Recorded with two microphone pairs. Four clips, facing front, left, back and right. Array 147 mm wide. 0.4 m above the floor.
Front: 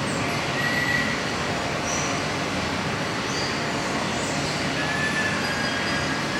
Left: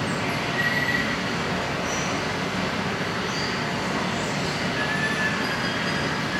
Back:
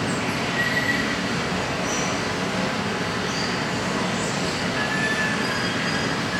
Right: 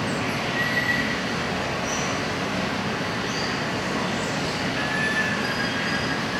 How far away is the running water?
About 4 m.